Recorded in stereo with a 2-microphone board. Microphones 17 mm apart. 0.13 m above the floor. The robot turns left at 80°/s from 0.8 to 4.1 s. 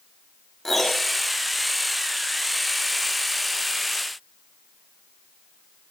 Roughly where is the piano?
Centre.